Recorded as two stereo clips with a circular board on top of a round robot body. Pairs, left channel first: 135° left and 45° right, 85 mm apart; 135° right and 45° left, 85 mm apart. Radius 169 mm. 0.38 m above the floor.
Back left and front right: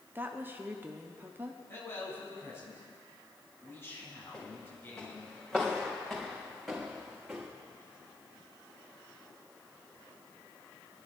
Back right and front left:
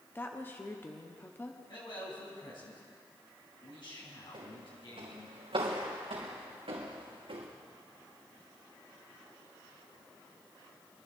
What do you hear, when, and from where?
0.1 s a woman speaking: 90° right, 1.2 m
1.7 s a man speaking: 160° right, 4.5 m
4.3 s footsteps: 65° left, 3.5 m; by 7.5 s 35° left, 3 m